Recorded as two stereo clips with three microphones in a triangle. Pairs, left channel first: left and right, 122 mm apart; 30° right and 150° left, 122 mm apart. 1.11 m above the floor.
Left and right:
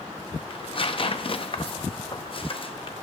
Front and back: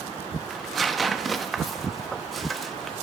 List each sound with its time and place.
0.5 s tearing paper: 60° left, 0.5 m